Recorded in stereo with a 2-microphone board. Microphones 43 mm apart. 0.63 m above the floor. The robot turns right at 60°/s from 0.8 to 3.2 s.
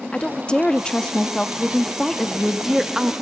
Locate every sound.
0.1 s a woman speaking: 20° left (ahead or behind), 0.5 m; by 3.1 s 20° right (ahead or behind), 0.5 m